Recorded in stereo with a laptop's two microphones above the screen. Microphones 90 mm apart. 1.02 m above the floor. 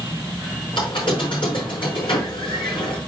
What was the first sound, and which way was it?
A squeak, 65° left (ahead or behind).